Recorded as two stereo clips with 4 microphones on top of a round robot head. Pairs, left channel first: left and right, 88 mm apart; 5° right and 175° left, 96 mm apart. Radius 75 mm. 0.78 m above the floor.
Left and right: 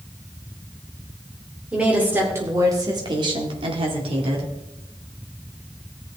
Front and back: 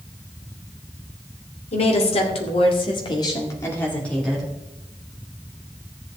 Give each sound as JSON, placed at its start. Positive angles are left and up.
{"t": 1.7, "sound": "a woman speaking", "azimuth_deg": -10, "distance_m": 2.5}